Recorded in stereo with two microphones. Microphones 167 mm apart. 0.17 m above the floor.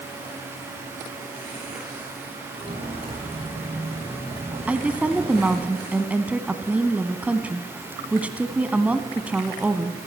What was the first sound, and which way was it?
Footsteps, 35° right (ahead or behind).